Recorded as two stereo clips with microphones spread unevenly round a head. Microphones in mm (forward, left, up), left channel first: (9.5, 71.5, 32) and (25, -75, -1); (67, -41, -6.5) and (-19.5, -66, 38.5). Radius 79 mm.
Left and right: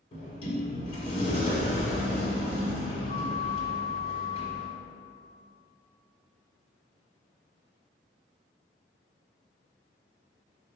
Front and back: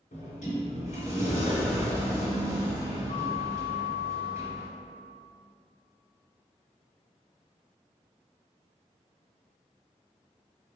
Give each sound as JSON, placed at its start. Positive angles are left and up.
{"t": 0.1, "sound": "a sliding door", "azimuth_deg": 70, "distance_m": 1.6}